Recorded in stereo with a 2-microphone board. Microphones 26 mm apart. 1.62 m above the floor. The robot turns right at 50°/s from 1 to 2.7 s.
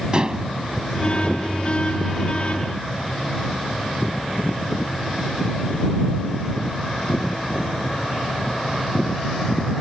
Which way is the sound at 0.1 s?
35° right (ahead or behind).